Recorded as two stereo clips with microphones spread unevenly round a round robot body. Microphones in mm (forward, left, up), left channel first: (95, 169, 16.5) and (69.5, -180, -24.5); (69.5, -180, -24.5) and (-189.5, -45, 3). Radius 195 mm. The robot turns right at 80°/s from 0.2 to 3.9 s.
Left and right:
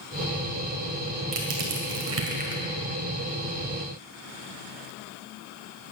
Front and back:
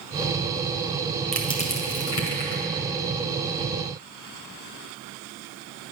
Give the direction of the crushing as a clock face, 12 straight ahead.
4 o'clock.